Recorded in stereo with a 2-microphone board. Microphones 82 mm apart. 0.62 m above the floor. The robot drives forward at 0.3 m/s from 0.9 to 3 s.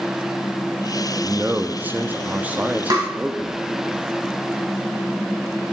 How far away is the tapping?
About 2.5 m.